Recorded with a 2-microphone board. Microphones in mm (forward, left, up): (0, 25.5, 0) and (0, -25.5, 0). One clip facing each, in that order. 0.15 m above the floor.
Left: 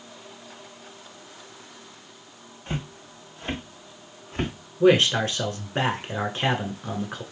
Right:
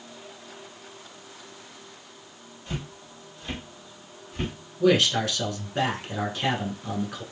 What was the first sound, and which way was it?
Footsteps, 35° left (ahead or behind).